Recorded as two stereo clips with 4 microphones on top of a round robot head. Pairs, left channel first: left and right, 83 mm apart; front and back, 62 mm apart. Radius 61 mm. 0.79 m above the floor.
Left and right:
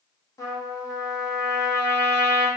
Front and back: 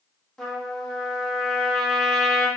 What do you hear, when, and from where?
0.4 s a trumpet: 85° left, 1.1 m